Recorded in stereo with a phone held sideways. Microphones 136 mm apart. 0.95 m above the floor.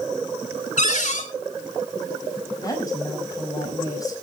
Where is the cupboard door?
65° left (ahead or behind), 2.5 m.